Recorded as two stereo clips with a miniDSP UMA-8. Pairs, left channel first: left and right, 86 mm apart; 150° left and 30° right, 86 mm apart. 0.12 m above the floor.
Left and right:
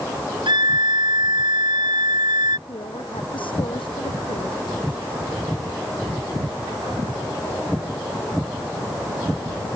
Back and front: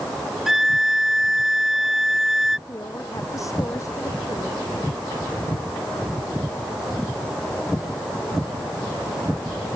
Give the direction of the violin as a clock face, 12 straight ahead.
4 o'clock.